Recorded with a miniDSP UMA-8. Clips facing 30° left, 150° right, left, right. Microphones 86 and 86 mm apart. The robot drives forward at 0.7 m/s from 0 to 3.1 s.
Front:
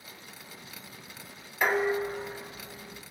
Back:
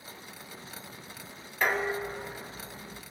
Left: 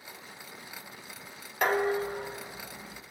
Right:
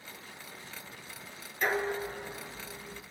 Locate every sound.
1.6 s dishes clattering: 110° left, 1.4 m; by 3.0 s 140° left, 2 m